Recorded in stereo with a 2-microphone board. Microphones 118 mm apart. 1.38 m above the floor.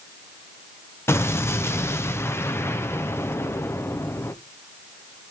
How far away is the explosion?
About 0.8 m.